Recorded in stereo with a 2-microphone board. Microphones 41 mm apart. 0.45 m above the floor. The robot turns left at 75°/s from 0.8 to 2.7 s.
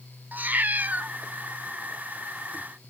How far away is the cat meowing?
About 0.7 m.